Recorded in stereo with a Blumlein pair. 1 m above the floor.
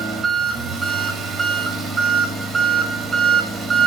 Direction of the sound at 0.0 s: 10° right.